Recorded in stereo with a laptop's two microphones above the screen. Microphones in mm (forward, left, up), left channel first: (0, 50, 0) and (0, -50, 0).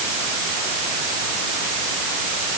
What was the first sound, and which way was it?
Only background noise.